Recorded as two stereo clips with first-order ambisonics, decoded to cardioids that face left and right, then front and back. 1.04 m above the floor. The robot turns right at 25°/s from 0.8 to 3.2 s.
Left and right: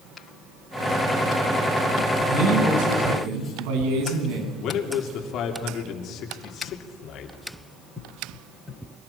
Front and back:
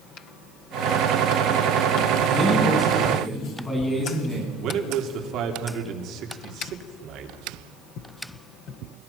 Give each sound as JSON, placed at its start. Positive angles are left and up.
{"t": 2.3, "sound": "a man speaking", "azimuth_deg": -100, "distance_m": 8.5}
{"t": 4.6, "sound": "a man speaking", "azimuth_deg": 135, "distance_m": 3.5}